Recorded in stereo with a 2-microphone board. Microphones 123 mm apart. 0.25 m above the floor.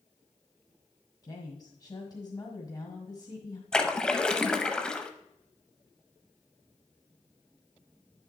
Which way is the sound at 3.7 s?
5° left (ahead or behind).